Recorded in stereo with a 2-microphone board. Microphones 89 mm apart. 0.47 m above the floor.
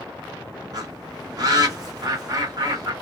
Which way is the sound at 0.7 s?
45° right (ahead or behind).